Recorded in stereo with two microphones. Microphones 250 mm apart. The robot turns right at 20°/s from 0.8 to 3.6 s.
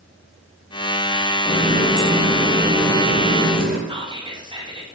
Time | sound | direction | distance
1.4 | a running tap | 170° left | 0.9 m
3.9 | whispering | 15° right (ahead or behind) | 0.7 m